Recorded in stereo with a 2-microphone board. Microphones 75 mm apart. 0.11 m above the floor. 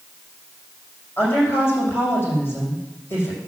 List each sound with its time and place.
1.2 s a woman speaking: 25° left (ahead or behind), 5 m